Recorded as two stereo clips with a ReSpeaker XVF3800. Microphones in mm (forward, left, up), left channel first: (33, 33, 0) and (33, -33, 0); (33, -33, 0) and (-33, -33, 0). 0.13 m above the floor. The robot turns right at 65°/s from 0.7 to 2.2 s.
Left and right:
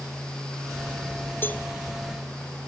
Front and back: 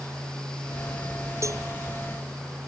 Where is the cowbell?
145° left; by 1.6 s 160° left.